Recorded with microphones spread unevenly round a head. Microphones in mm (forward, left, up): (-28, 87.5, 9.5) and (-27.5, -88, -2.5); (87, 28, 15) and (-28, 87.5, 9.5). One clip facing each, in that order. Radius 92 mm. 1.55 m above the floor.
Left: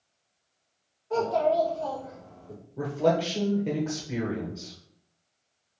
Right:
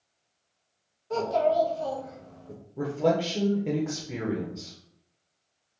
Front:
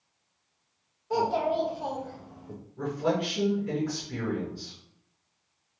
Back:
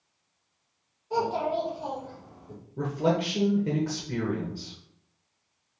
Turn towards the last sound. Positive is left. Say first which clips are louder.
# even, back 2 dB
turn(degrees=-175)